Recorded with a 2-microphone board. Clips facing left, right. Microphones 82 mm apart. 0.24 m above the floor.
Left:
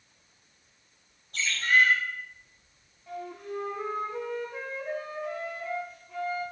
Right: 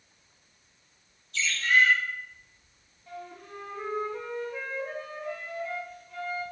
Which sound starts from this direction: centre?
A flute, at 3.1 s.